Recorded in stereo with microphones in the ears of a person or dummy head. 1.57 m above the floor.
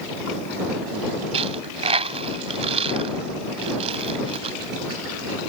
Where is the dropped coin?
35° right (ahead or behind).